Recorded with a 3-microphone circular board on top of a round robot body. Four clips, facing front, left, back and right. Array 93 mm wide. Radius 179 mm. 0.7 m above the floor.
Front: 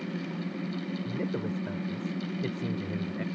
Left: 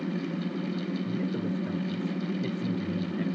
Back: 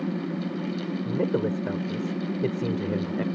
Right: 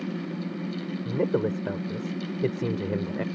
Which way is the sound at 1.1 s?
125° right.